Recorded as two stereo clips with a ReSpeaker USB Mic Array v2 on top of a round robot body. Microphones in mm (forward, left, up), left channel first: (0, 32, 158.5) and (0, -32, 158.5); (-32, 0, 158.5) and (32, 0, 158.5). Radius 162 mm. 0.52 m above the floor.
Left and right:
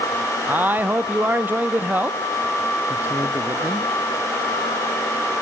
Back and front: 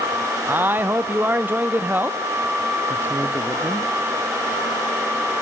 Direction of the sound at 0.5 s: 40° right.